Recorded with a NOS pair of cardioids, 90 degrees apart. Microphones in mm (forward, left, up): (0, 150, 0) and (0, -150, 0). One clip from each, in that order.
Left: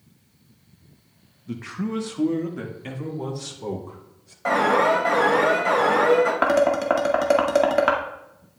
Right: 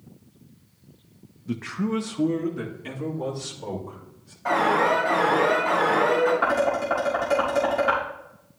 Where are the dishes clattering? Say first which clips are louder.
Left 3 dB; 65° left, 2.0 m.